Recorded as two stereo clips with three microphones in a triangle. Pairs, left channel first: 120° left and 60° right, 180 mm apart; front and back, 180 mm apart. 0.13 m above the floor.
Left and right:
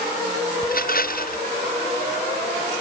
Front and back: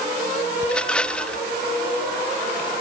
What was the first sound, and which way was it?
A rattle, 85° left.